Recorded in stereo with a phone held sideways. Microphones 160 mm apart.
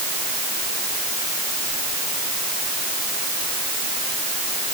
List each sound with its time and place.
Only background noise.